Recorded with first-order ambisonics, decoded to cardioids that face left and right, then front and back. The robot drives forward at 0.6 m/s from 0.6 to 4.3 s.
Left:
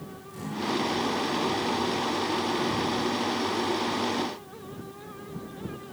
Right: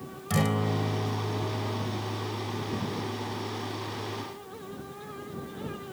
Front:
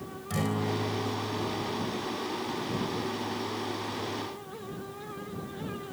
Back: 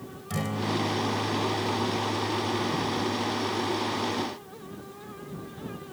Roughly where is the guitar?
Right.